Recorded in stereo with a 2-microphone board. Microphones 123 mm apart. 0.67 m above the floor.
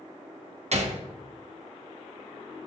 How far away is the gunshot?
About 0.7 m.